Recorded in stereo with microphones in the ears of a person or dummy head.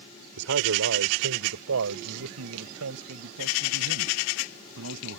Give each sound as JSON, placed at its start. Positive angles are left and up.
{"t": 0.4, "sound": "a man speaking", "side_deg": -75}